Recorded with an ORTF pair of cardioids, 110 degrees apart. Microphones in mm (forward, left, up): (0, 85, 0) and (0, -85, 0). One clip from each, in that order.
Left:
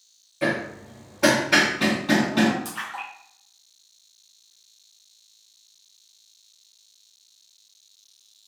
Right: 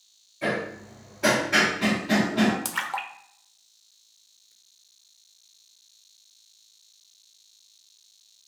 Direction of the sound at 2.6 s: 55° right.